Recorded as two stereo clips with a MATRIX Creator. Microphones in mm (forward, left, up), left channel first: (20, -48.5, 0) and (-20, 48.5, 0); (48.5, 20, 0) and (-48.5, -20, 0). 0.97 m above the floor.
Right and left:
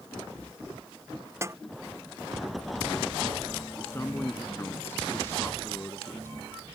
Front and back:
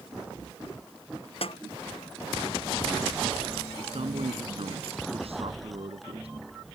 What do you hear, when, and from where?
1.4 s a snare drum: 50° left
3.8 s a man speaking: 135° right